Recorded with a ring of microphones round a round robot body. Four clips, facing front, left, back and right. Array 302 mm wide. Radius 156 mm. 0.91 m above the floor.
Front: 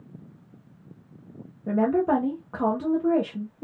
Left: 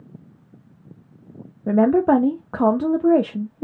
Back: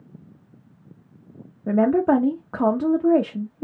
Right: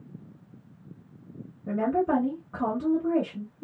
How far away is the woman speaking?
About 0.7 m.